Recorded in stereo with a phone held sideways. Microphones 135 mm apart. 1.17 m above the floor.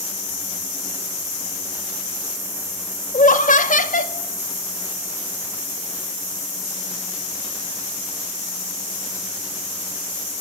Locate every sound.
3.1 s laughter: 75° left (ahead or behind), 3 m